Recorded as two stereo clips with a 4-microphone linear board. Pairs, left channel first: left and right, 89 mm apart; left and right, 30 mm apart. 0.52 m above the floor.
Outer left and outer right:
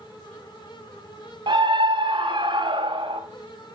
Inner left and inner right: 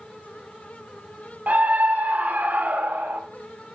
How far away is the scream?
About 2.5 m.